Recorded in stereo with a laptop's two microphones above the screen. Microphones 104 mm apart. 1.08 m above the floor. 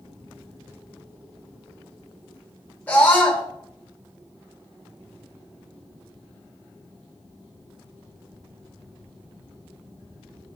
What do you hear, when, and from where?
2.9 s a scream: 15° left (ahead or behind), 4 m